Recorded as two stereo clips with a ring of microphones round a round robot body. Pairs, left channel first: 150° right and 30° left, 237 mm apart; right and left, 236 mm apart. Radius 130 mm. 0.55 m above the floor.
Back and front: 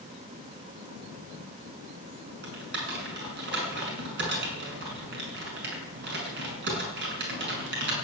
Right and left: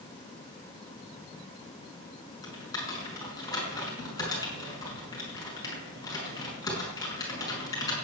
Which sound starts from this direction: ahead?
Typing on a keyboard, at 2.4 s.